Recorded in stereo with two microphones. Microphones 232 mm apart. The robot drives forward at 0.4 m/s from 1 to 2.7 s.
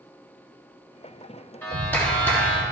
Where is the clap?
10° left (ahead or behind), 1.7 m.